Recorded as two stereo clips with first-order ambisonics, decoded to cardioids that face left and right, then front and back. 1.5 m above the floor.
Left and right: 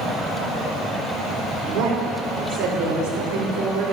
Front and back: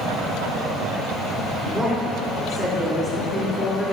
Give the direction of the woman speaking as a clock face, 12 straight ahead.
3 o'clock.